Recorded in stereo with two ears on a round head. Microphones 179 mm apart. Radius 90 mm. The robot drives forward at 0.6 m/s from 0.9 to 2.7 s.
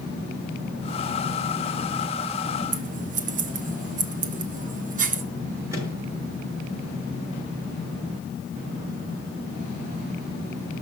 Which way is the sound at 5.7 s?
15° right (ahead or behind).